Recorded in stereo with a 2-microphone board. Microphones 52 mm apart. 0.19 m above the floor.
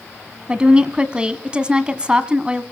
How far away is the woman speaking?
About 1.2 m.